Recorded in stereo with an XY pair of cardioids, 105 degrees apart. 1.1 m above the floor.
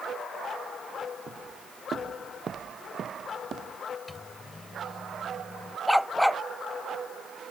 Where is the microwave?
20° left.